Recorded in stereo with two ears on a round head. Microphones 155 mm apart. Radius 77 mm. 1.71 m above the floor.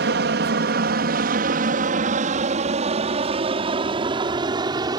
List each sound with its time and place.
0.0 s an aircraft: 65° right (ahead or behind); by 5.0 s 20° right (ahead or behind)